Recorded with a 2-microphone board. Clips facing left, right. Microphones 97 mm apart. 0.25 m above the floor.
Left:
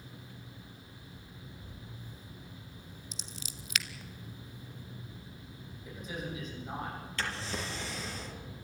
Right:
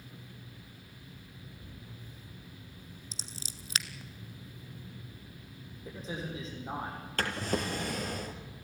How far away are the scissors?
About 0.9 m.